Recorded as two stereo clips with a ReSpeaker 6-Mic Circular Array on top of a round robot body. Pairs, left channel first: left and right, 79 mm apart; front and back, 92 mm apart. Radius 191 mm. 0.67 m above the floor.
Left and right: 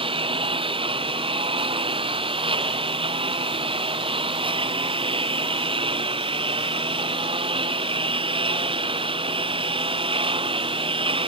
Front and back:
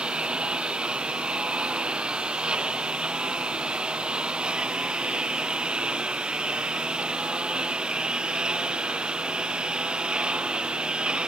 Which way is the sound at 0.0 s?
100° right.